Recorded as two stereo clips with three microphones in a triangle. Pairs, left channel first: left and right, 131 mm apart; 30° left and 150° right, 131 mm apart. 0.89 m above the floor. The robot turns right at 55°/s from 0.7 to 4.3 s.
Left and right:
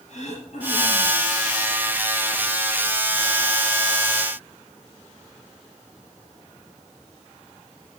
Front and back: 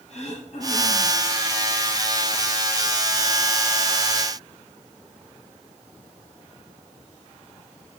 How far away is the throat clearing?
About 3.5 m.